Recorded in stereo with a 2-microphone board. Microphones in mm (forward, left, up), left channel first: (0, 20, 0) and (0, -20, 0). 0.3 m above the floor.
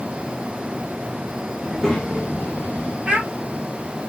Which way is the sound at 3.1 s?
25° right (ahead or behind).